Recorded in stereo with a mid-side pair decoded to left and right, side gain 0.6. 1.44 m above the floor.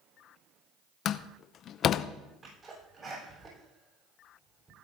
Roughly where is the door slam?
Ahead left.